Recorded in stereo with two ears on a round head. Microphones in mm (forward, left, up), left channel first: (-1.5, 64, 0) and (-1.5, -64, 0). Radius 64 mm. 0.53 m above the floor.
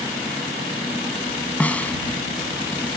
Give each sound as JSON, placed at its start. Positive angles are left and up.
{"t": 1.6, "sound": "a snare drum", "side_deg": 10}